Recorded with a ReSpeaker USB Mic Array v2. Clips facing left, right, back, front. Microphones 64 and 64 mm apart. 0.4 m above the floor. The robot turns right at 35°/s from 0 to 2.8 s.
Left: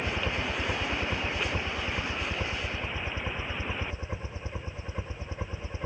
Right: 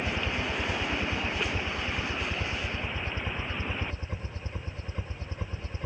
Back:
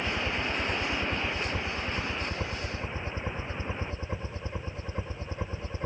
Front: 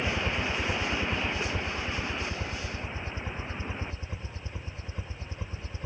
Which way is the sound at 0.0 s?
55° left.